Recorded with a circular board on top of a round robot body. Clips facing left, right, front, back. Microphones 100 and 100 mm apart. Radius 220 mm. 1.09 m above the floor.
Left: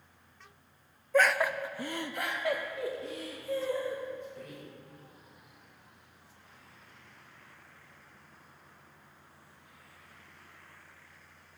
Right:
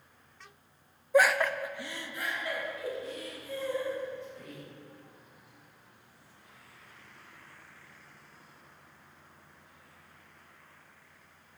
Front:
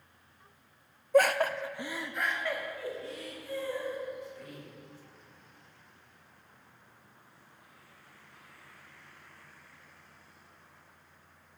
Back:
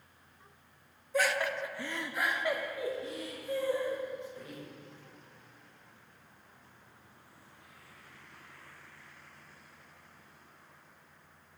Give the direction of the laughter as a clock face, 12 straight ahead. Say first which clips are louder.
Right 2 dB, front 6 dB; 1 o'clock.